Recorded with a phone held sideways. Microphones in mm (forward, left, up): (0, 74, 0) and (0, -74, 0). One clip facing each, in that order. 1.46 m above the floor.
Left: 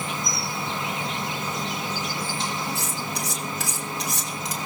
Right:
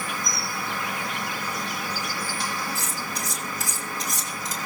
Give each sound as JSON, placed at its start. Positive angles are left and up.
{"t": 0.0, "sound": "an insect", "side_deg": 20, "distance_m": 0.8}
{"t": 2.8, "sound": "cutlery clinking", "side_deg": 65, "distance_m": 4.5}